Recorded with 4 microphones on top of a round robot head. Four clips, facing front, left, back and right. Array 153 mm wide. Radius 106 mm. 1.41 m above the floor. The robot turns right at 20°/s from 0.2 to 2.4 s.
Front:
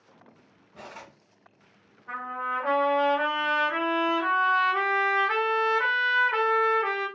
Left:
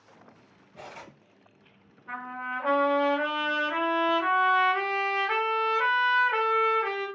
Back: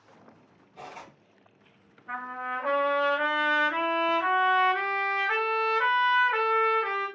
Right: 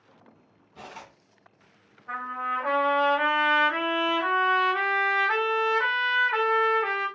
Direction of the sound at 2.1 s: 50° left.